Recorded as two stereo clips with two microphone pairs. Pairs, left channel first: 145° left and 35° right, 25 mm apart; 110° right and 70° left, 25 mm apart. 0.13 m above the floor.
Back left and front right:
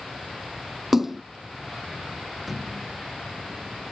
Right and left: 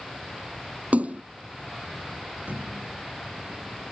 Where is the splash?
45° left.